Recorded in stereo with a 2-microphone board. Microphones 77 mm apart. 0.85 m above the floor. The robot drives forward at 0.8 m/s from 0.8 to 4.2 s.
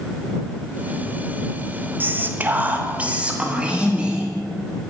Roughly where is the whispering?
Right.